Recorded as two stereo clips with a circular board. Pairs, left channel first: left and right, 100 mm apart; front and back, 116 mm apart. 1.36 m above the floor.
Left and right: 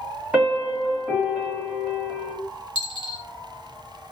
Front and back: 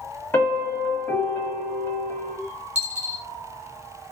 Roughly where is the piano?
Ahead right.